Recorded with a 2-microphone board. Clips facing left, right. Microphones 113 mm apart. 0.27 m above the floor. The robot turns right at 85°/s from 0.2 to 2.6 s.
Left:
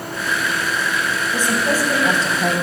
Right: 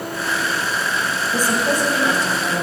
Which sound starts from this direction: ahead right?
A woman speaking, at 1.3 s.